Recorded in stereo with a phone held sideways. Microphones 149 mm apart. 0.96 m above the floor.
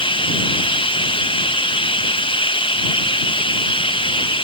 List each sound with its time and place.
0.0 s running water: 35° left (ahead or behind)